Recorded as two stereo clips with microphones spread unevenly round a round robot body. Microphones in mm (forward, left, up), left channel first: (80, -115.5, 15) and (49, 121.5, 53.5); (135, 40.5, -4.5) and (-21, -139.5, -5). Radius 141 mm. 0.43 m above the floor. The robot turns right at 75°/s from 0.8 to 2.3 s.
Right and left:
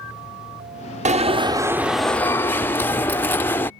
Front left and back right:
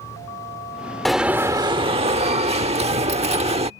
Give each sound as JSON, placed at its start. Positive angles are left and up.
{"t": 1.1, "sound": "an alarm", "azimuth_deg": 135}